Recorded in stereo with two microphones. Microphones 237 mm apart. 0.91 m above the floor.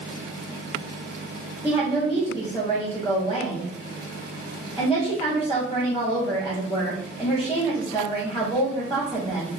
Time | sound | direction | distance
1.6 | a woman speaking | 20° left (ahead or behind) | 1.8 m